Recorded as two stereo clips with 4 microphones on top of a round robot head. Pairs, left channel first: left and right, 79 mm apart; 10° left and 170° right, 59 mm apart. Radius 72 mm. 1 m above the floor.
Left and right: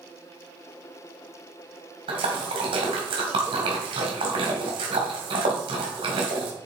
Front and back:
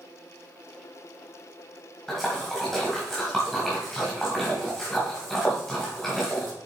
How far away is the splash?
About 2 m.